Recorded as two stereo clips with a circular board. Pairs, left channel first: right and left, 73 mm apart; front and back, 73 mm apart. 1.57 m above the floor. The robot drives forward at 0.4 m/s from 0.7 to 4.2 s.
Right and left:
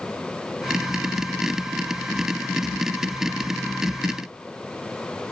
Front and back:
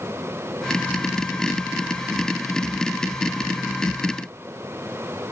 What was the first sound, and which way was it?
Only background noise.